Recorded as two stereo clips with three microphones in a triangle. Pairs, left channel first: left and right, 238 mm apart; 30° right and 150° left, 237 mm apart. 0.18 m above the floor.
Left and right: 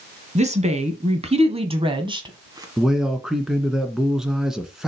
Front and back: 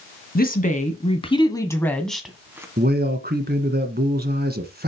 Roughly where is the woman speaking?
Ahead right.